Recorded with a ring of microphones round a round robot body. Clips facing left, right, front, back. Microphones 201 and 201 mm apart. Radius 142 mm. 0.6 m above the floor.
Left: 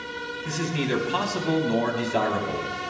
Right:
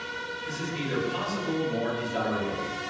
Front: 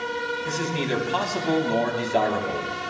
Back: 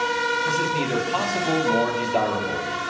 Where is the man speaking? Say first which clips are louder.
Left 6 dB, even; 85° left, 4 m.